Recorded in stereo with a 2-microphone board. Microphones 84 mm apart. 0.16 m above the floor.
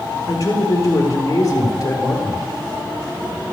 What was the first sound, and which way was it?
A man speaking, 40° left (ahead or behind).